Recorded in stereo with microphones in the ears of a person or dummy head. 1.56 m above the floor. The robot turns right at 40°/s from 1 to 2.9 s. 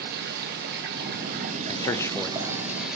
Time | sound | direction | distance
0.0 | running water | 80° right | 2 m
1.7 | a man speaking | 30° left (ahead or behind) | 0.6 m